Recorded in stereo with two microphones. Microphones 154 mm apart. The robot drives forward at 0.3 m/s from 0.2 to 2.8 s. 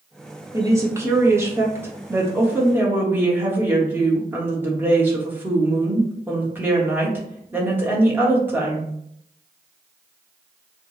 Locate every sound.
0.5 s a woman speaking: 20° right (ahead or behind), 0.8 m; by 8.9 s 10° right (ahead or behind), 1.2 m